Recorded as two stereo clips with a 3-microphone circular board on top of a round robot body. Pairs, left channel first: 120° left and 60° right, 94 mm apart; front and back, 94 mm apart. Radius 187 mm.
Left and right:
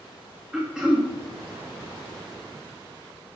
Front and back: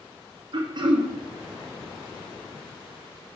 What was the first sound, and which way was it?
Throat clearing, 140° right.